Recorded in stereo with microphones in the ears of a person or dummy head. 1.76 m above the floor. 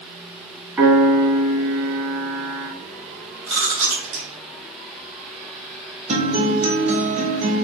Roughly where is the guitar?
Right.